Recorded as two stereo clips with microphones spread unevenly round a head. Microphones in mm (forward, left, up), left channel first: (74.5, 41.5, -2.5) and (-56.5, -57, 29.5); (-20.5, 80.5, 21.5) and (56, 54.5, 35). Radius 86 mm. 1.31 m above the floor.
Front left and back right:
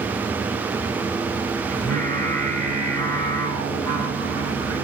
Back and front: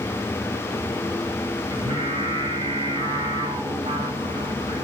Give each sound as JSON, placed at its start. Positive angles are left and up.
{"t": 1.7, "sound": "singing", "azimuth_deg": -45, "distance_m": 2.5}